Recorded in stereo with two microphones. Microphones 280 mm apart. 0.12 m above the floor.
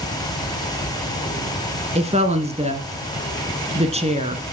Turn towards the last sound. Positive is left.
turn(degrees=-20)  # may be behind; listen again after turning